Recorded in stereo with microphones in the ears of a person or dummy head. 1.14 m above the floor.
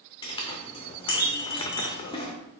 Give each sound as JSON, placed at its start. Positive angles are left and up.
{"t": 0.2, "sound": "a clink", "side_deg": 30, "distance_m": 0.6}